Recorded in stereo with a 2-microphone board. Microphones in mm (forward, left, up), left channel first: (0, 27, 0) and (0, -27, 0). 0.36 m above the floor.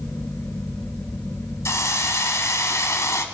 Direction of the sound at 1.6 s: 65° left (ahead or behind).